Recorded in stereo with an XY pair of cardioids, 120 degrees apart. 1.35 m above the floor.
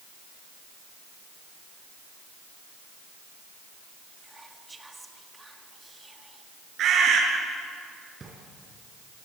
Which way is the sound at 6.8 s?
60° right.